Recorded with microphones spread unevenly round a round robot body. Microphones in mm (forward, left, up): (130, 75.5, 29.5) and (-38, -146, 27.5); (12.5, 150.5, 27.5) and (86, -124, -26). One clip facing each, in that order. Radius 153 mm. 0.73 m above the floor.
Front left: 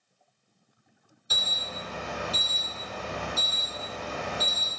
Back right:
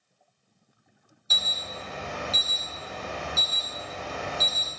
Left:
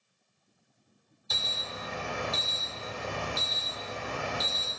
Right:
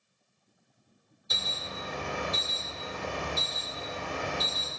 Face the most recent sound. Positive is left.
turn(degrees=-20)